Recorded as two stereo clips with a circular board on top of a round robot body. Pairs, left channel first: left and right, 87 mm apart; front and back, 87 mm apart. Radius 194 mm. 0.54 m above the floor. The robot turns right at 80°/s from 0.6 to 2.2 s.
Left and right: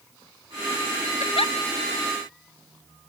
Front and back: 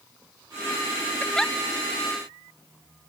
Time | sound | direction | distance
1.2 | a giggle | 65° left | ?